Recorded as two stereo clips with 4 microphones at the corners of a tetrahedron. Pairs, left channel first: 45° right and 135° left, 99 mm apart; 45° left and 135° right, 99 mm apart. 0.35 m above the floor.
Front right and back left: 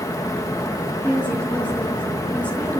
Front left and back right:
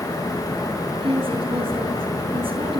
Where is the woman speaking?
120° right, 4 m.